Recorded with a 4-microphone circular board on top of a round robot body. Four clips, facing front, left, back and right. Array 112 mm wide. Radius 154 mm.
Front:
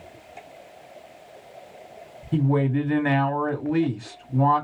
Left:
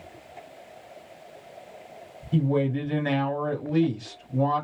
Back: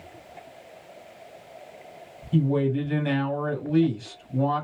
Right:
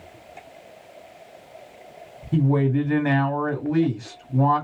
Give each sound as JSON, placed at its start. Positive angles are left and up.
{"t": 2.3, "sound": "a woman speaking", "azimuth_deg": -35, "distance_m": 2.0}